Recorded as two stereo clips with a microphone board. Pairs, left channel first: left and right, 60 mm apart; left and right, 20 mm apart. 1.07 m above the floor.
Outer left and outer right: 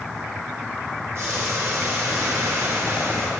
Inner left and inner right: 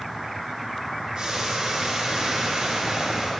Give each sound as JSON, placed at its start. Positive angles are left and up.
{"t": 1.1, "sound": "boiling", "side_deg": -40, "distance_m": 5.0}